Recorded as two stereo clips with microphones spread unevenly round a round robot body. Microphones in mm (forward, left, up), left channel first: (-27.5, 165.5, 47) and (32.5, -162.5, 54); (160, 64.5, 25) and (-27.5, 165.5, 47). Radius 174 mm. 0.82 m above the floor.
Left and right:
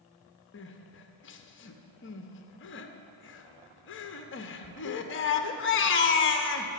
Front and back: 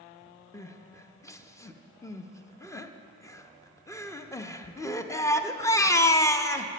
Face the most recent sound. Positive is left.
turn(degrees=45)